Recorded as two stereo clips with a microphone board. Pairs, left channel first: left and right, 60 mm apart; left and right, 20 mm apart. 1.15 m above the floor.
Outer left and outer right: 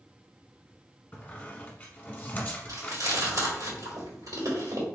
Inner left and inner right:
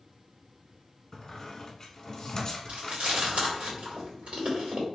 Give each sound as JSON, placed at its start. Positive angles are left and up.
{"t": 1.1, "sound": "a squeak", "side_deg": 25, "distance_m": 1.1}
{"t": 2.7, "sound": "chewing", "side_deg": -70, "distance_m": 2.0}